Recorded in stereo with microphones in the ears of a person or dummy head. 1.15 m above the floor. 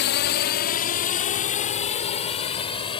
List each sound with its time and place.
0.0 s a drone: 50° left (ahead or behind); by 3.0 s 30° left (ahead or behind)